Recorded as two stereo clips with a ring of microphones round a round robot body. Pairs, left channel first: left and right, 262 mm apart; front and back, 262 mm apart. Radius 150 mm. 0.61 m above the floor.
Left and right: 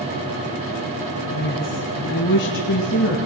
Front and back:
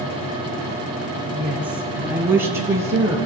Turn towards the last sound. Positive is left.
turn(degrees=100)